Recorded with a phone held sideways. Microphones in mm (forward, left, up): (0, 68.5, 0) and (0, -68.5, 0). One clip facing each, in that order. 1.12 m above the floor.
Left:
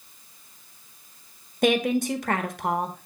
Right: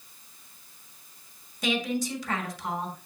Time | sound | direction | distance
1.6 | a woman speaking | 55° left (ahead or behind) | 1.2 m